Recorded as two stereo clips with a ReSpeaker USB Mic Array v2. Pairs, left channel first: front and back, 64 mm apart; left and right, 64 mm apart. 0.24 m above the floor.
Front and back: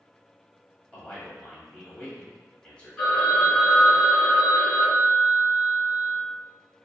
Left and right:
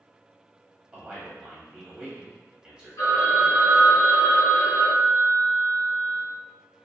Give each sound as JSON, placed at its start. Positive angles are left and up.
{"t": 0.9, "sound": "a man speaking", "azimuth_deg": -35, "distance_m": 1.0}
{"t": 3.0, "sound": "a phone ringing", "azimuth_deg": 80, "distance_m": 2.0}